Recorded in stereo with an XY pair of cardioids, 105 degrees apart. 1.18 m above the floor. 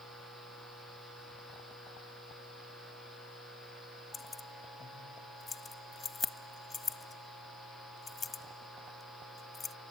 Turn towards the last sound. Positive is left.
turn(degrees=30)